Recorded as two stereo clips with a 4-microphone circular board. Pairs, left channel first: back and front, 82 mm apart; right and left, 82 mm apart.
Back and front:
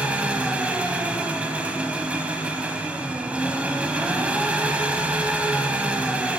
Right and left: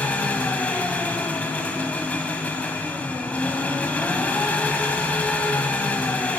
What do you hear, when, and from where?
0.0 s an engine running: 45° right, 1.1 m